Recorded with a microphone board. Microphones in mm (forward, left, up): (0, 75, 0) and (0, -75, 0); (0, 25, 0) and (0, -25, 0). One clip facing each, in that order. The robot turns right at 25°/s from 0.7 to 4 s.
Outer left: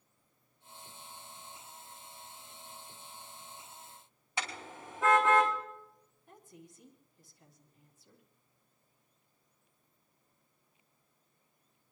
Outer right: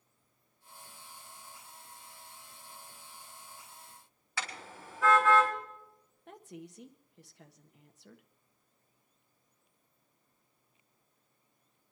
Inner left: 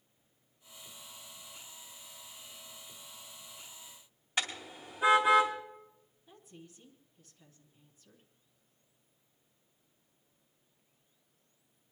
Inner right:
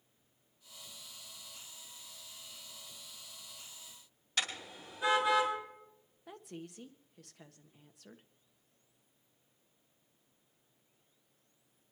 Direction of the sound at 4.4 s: 20° left (ahead or behind).